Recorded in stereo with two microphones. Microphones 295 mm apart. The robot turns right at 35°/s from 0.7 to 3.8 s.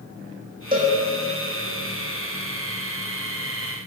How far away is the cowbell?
About 2.5 m.